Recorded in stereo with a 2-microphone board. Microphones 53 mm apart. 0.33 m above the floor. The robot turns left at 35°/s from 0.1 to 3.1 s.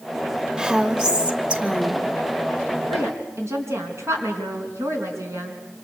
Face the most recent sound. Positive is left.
turn(degrees=-65)  # may be behind; listen again after turning